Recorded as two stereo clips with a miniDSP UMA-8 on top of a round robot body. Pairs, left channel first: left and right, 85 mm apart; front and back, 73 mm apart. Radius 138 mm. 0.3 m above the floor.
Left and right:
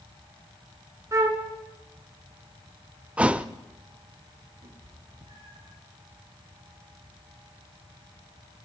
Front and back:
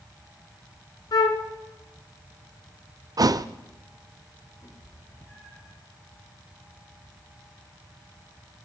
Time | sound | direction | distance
1.1 | a flute | 35° right | 1.4 m
3.2 | a thud | 165° right | 0.6 m
4.6 | a cat meowing | 70° right | 6 m